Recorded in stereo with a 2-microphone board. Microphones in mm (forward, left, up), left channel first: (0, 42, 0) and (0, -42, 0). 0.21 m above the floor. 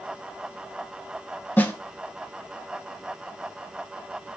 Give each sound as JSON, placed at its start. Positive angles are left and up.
{"t": 1.6, "sound": "a snare drum", "side_deg": 25, "distance_m": 0.5}